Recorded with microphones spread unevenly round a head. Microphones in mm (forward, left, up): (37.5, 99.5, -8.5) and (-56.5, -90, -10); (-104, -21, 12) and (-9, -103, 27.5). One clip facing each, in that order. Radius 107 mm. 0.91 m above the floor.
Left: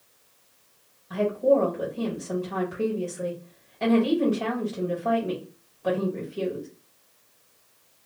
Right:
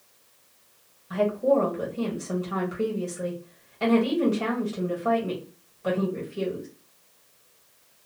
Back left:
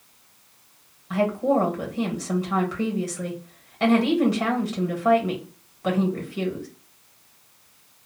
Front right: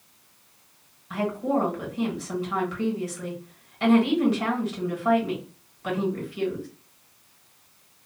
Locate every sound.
1.1 s a woman speaking: 165° left, 1.5 m